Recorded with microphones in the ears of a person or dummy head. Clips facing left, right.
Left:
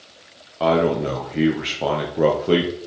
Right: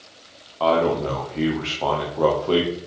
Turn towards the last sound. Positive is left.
turn(degrees=20)  # may be behind; listen again after turning